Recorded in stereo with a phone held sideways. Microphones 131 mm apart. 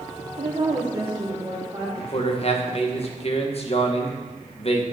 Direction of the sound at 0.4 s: 45° right (ahead or behind).